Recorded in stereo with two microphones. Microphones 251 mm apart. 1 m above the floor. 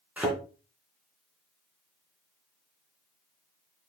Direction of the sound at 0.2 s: 5° right (ahead or behind).